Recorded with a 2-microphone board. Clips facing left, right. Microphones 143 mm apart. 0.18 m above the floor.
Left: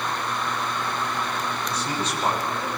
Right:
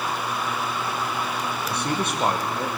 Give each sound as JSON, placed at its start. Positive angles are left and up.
{"t": 1.7, "sound": "a man speaking", "side_deg": -60, "distance_m": 5.5}